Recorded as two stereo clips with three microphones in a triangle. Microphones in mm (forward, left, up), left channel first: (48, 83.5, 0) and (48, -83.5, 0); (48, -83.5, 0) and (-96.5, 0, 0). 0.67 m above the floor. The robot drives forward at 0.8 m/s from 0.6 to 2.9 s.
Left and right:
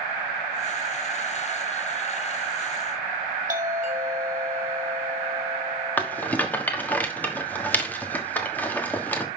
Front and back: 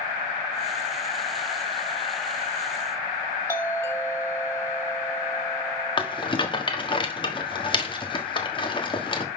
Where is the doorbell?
105° right, 2 m.